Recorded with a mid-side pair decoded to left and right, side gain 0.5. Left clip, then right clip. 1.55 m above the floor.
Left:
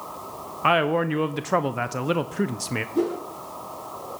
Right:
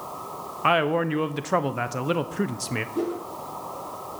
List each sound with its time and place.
0.6 s a man speaking: 5° left, 0.5 m
3.0 s a whoosh: 25° left, 2.5 m